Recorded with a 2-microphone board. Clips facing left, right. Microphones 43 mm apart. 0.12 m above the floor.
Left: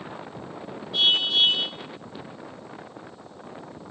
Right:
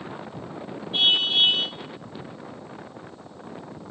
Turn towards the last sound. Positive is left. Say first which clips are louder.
# right 1 dB
turn(degrees=-35)  # may be behind; listen again after turning